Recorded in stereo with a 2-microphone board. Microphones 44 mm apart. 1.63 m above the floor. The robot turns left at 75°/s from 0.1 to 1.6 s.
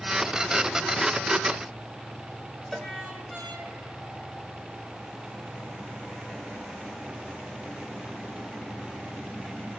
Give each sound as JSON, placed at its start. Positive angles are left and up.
{"t": 2.7, "sound": "a cowbell", "side_deg": 5, "distance_m": 1.5}